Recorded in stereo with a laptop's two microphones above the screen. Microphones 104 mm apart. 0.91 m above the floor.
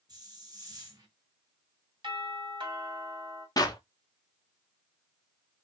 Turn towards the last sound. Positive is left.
turn(degrees=35)  # may be behind; listen again after turning